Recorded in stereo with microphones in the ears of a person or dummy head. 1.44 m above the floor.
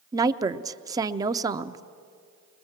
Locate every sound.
0.1 s a woman speaking: 20° right (ahead or behind), 0.6 m